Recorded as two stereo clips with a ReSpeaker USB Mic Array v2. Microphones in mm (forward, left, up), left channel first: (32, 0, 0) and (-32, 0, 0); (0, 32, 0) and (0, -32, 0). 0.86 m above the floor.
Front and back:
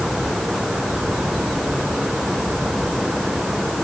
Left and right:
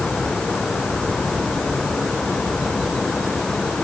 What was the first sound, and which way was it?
Only background noise.